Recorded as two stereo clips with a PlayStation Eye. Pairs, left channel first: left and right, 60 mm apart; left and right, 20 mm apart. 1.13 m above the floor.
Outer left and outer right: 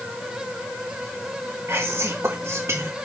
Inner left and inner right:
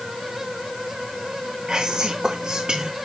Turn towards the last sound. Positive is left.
turn(degrees=-50)  # may be behind; listen again after turning